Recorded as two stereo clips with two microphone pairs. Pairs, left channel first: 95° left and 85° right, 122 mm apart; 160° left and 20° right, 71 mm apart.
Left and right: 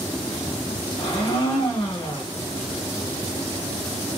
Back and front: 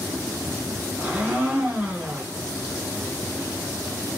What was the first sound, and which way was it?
A blender, 45° left.